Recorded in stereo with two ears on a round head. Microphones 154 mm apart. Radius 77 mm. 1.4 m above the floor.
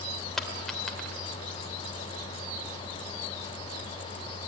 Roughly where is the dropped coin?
Centre.